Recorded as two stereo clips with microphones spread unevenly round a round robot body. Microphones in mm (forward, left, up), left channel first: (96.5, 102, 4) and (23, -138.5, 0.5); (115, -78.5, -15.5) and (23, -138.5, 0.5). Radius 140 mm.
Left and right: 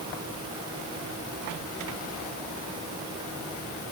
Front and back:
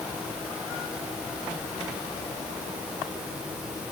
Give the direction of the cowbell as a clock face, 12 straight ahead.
I don't hear a cowbell.